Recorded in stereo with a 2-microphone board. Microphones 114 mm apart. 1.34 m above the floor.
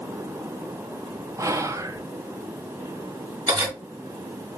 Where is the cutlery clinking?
35° right (ahead or behind), 1.8 m.